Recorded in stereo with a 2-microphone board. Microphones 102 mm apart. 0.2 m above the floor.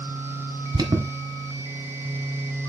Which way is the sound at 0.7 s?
45° right (ahead or behind).